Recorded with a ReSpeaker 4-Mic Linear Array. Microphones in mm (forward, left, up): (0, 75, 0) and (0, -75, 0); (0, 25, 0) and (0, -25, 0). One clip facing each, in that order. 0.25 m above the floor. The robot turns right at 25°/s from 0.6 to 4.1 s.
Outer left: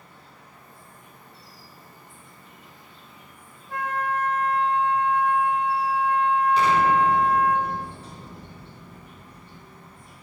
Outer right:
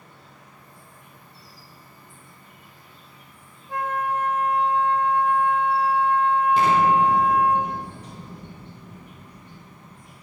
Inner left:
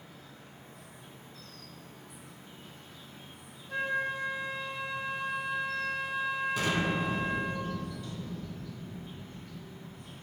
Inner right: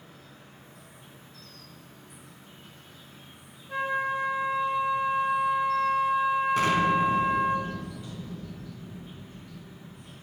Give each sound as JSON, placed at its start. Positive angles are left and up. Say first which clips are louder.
{"t": 0.0, "sound": "an insect", "louder": "outer right 1 dB, inner right 1 dB", "azimuth_deg": -105, "distance_m": 1.1}
{"t": 3.7, "sound": "a flute", "louder": "outer right 2 dB, inner right 4 dB", "side_deg": -15, "distance_m": 0.8}
{"t": 6.6, "sound": "an explosion", "louder": "outer right 2 dB, inner right 7 dB", "side_deg": -45, "distance_m": 0.6}